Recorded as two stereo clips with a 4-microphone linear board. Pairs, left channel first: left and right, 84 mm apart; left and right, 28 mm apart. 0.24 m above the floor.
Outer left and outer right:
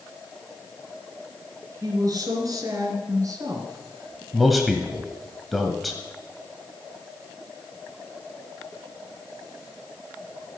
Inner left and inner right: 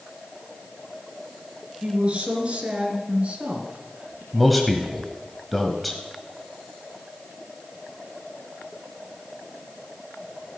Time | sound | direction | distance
1.8 | a woman speaking | 45° right (ahead or behind) | 3 m
4.3 | a man speaking | centre (ahead or behind) | 1.1 m